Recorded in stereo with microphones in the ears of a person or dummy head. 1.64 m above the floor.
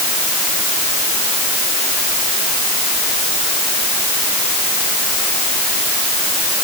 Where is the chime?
No chime in this recording.